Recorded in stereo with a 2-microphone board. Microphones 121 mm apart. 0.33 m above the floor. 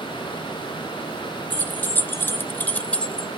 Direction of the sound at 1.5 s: 15° left (ahead or behind).